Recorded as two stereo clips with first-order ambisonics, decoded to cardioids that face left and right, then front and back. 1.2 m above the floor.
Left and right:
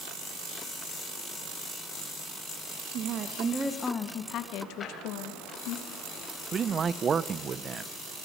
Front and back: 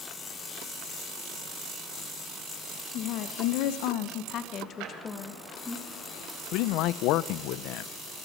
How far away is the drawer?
About 4.5 m.